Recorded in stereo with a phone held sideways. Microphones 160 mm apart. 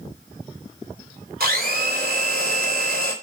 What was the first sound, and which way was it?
A blender, 65° right (ahead or behind).